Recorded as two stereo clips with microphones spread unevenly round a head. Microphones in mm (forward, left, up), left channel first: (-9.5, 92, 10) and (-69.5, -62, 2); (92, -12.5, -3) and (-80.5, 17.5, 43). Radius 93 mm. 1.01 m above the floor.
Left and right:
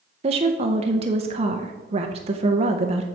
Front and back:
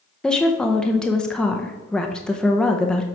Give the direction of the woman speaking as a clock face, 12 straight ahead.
3 o'clock.